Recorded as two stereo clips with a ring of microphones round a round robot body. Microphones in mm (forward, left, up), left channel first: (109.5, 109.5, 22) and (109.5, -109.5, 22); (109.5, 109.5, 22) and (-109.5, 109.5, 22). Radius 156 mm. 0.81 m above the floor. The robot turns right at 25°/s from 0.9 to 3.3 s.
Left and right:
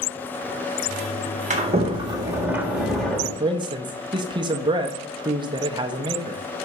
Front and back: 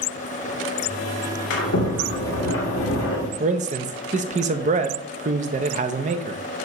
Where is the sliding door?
35° right, 1.8 m; by 3.3 s 10° left, 1.8 m.